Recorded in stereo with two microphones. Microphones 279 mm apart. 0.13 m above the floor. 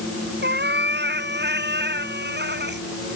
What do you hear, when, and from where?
0.4 s a cat meowing: 40° right (ahead or behind)